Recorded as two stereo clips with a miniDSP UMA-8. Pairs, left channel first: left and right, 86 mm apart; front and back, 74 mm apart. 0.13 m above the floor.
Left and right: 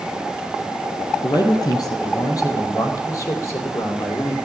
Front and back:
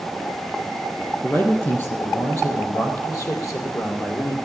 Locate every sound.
1.2 s a man speaking: 55° left, 4 m; by 4.3 s 30° left, 4 m